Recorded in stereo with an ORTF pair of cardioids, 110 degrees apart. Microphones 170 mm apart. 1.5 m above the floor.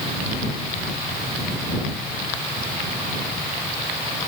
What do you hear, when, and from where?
Only background noise.